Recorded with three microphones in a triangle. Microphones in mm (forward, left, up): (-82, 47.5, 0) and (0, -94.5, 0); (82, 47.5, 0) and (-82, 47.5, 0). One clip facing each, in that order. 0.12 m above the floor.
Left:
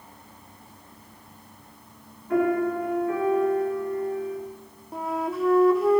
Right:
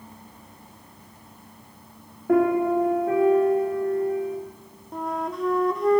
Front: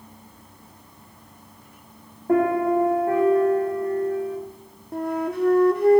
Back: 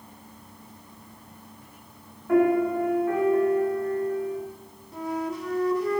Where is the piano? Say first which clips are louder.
Right 3 dB, front 1 dB; 50° right, 5 m.